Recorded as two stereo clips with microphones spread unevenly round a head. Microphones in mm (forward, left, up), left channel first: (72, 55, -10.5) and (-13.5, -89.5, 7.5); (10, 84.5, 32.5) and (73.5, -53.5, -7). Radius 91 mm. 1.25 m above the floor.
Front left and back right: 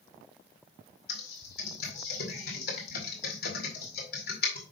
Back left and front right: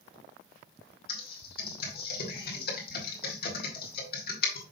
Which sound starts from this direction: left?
Typing on a keyboard, at 1.1 s.